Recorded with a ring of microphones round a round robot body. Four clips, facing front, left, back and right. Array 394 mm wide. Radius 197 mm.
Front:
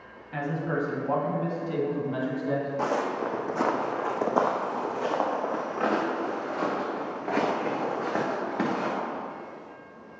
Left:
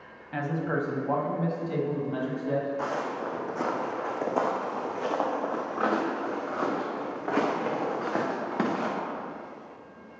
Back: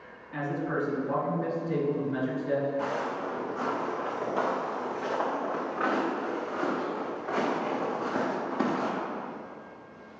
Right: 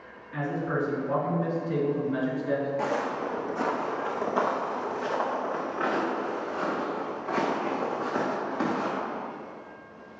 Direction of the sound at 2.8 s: 20° right.